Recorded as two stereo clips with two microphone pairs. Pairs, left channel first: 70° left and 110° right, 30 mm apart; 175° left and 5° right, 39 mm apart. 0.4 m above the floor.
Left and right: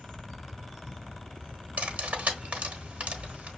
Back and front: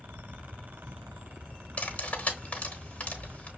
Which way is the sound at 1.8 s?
135° right.